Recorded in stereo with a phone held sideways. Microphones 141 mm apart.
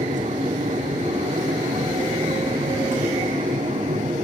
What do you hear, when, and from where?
0.0 s a machine running: 60° right (ahead or behind), 1.7 m